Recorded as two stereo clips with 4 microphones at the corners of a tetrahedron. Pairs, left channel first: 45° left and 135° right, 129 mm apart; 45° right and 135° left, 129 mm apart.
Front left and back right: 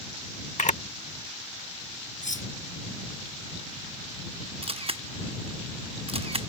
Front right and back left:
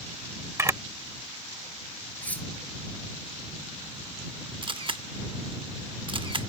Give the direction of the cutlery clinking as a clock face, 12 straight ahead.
11 o'clock.